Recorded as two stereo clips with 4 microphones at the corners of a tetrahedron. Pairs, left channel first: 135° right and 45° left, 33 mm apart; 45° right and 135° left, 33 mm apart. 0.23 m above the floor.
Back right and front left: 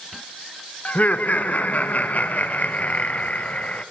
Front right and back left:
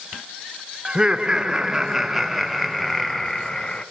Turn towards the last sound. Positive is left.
turn(degrees=-105)